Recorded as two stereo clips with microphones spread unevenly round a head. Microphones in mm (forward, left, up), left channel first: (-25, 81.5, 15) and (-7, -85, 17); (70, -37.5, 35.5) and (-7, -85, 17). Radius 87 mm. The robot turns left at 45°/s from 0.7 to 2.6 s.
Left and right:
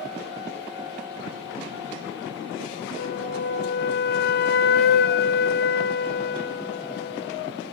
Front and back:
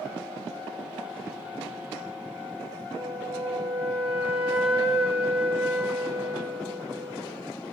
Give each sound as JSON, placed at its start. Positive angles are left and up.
{"t": 3.0, "sound": "a flute", "azimuth_deg": 125, "distance_m": 0.7}